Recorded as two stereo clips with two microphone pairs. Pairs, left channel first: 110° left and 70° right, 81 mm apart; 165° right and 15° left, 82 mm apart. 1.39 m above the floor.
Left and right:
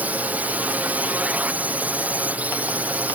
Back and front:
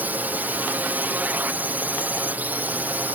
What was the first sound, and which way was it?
A drone, 25° right.